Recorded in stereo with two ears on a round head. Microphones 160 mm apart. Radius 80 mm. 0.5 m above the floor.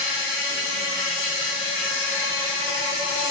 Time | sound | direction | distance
0.0 | an insect | 65° left (ahead or behind) | 2.0 m